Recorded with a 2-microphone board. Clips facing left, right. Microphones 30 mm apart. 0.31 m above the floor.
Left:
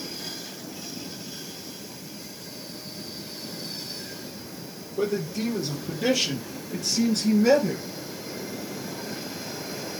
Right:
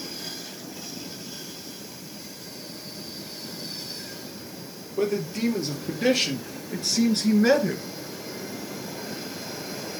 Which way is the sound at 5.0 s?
50° right (ahead or behind).